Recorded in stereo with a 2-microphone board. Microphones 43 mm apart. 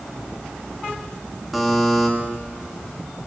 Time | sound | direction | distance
1.5 | a buzzer | centre (ahead or behind) | 2.5 m